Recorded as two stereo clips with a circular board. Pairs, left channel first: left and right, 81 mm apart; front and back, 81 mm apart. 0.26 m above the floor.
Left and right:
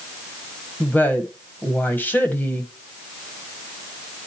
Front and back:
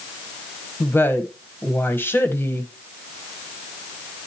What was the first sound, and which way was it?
A woman speaking, 40° left.